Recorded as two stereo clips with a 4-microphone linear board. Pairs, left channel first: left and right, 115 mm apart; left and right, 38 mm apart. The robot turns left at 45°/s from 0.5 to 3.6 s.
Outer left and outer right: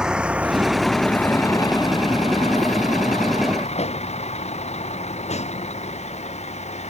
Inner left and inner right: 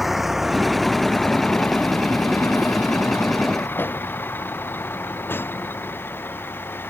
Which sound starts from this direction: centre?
A vehicle, at 0.0 s.